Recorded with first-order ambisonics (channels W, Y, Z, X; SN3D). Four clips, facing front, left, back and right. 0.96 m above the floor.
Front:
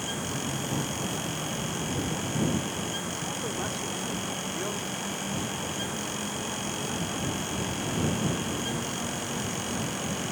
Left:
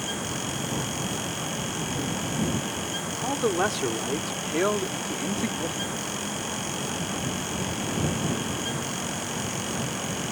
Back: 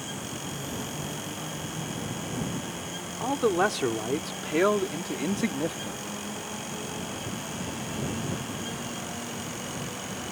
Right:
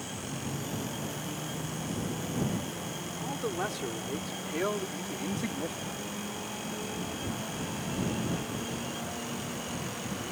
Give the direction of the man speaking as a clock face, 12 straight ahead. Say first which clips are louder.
Left 9 dB, back 8 dB; 7 o'clock.